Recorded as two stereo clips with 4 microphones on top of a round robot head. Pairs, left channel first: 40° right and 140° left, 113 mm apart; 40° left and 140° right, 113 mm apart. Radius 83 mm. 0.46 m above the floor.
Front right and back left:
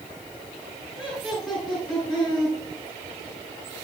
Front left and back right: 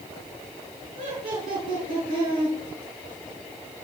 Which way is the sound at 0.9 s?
130° right.